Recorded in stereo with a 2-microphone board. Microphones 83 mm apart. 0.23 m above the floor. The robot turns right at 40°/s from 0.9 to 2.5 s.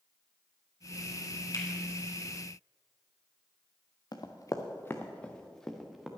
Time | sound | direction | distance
1.5 | a finger snap | 50° left (ahead or behind) | 2.5 m
4.1 | running footsteps | 55° left (ahead or behind) | 1.4 m